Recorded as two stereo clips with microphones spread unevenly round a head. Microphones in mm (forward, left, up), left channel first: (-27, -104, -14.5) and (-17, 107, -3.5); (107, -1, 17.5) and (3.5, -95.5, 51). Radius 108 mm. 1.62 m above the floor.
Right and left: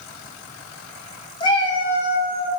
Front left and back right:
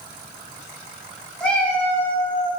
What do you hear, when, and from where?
1.4 s a cat meowing: 65° right, 0.8 m